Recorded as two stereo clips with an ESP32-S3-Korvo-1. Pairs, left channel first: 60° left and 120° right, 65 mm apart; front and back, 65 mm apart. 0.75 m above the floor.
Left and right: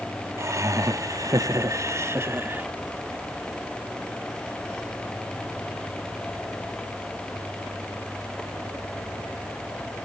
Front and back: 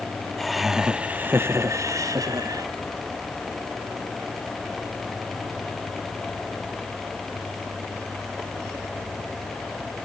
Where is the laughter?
85° right, 1.2 m; by 2.7 s 175° right, 1.5 m.